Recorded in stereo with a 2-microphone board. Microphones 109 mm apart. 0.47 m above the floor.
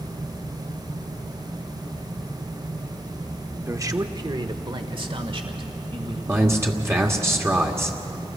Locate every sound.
3.7 s a man speaking: 25° right (ahead or behind), 0.8 m; by 6.2 s 55° right (ahead or behind), 2.0 m
6.3 s a man speaking: 25° right (ahead or behind), 1.4 m